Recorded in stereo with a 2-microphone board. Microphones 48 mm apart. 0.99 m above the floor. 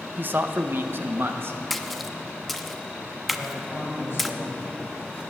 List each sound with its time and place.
0.2 s a man speaking: 45° right (ahead or behind), 0.7 m; by 1.6 s 60° right (ahead or behind), 1.3 m
1.7 s a splash: centre (ahead or behind), 0.6 m
3.3 s a man speaking: 50° left (ahead or behind), 5.5 m